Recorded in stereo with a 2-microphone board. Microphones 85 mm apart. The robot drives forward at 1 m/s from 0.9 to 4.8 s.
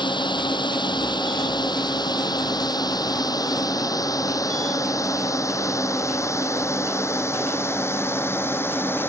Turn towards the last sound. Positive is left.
turn(degrees=25)  # may be behind; listen again after turning